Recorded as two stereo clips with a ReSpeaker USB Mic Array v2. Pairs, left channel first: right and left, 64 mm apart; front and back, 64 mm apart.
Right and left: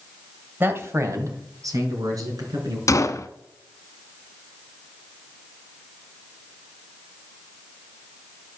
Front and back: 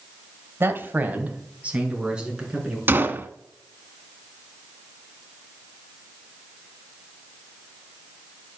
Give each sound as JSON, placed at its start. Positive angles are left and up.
{"t": 0.6, "sound": "a man speaking", "azimuth_deg": 140, "distance_m": 1.6}
{"t": 2.9, "sound": "a gunshot", "azimuth_deg": -125, "distance_m": 0.8}